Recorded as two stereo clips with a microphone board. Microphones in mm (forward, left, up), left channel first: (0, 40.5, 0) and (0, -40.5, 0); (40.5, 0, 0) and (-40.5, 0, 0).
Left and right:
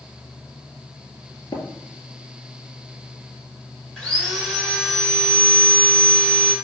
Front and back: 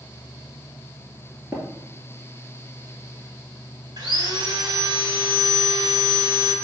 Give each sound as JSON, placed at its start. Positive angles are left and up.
{"t": 1.5, "sound": "tapping", "azimuth_deg": 125, "distance_m": 2.5}
{"t": 4.0, "sound": "sawing", "azimuth_deg": 170, "distance_m": 2.0}